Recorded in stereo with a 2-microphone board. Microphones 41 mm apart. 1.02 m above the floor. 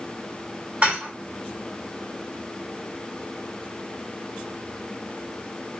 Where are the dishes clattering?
30° right (ahead or behind), 2 m.